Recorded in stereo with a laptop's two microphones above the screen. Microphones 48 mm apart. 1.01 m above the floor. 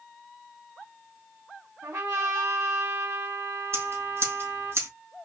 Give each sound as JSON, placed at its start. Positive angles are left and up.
{"t": 1.8, "sound": "a trumpet", "side_deg": -80, "distance_m": 2.5}
{"t": 3.7, "sound": "scissors", "side_deg": -65, "distance_m": 3.0}